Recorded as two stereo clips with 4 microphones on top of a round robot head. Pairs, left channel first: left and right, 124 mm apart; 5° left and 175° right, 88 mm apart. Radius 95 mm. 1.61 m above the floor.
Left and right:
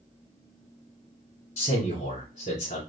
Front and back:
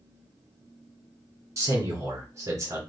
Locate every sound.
1.6 s a man speaking: 130° left, 2.0 m